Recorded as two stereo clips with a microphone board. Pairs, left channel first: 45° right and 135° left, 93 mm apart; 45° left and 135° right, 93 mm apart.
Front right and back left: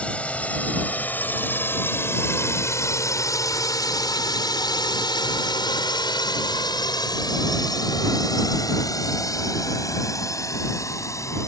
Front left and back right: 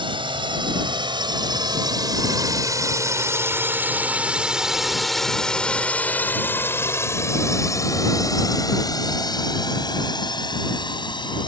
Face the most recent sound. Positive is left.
turn(degrees=10)